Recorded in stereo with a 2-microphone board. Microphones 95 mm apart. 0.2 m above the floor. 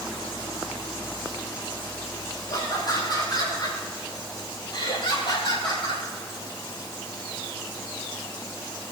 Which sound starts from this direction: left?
Laughter, at 2.5 s.